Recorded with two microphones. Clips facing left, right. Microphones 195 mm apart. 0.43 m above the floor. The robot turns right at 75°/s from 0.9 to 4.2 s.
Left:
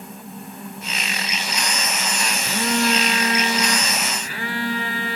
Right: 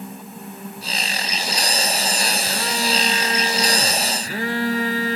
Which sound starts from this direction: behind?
A phone buzzing, at 2.4 s.